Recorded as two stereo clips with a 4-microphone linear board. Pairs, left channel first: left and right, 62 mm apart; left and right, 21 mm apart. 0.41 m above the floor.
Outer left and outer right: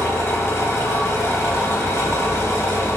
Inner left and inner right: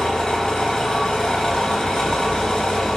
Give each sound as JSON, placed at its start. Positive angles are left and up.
{"t": 0.0, "sound": "an engine running", "side_deg": 50, "distance_m": 0.9}